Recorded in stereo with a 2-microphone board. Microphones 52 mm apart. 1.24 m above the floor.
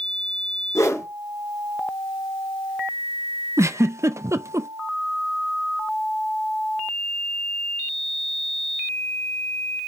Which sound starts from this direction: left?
A whoosh, at 0.8 s.